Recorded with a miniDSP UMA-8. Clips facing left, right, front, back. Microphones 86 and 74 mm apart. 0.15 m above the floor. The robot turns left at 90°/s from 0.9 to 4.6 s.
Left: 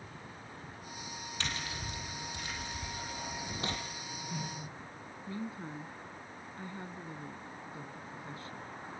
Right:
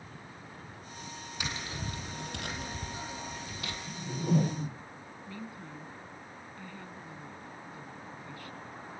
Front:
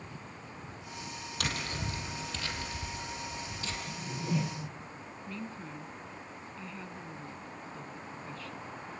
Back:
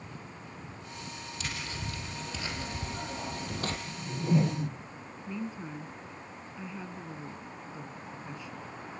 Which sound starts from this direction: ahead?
Tapping, at 1.4 s.